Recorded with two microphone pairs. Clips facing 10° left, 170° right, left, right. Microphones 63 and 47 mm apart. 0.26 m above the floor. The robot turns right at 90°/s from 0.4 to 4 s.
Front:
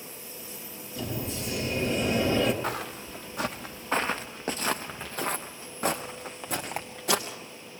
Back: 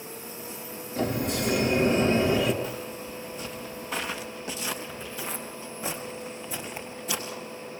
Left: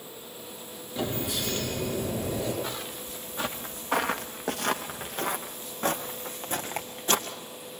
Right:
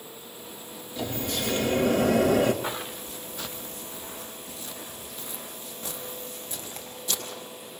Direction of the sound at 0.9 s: 140° left.